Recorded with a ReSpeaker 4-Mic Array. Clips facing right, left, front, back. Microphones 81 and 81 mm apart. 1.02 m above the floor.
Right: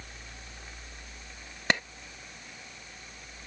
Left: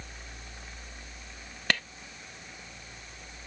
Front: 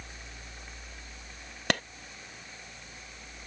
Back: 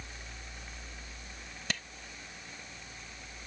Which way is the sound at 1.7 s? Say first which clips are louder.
Right 2 dB, front 10 dB; 20° right.